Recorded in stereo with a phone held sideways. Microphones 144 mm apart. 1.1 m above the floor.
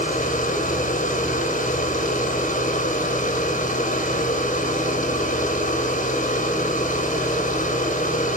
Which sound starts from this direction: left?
A machine running, at 0.0 s.